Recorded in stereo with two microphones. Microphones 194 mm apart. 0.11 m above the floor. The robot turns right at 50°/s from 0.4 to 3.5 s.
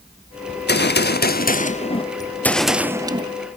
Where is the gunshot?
70° left, 0.6 m; by 3.3 s 145° right, 0.6 m.